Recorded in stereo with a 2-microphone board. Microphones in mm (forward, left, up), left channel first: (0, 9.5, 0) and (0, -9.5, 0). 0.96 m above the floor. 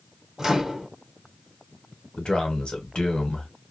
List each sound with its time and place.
0.4 s a microwave: 35° right (ahead or behind), 0.9 m
2.2 s a man speaking: 55° left (ahead or behind), 1.1 m